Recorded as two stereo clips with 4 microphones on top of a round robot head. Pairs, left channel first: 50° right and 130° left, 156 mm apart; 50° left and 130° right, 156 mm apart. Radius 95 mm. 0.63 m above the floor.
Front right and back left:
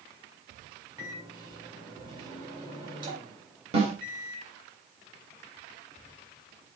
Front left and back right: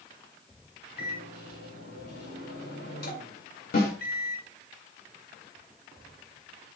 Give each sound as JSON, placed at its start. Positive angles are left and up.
{"t": 1.0, "sound": "a microwave", "azimuth_deg": 70, "distance_m": 4.0}
{"t": 3.7, "sound": "a snare drum", "azimuth_deg": 80, "distance_m": 3.5}